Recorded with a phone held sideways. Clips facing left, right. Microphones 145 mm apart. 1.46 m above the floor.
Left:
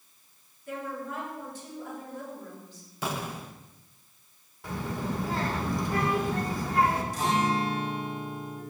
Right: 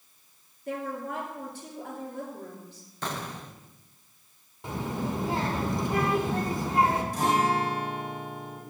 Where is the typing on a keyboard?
I don't hear typing on a keyboard.